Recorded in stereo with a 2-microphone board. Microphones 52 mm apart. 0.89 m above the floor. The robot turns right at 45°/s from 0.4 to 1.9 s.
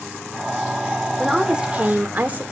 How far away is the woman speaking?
About 2 m.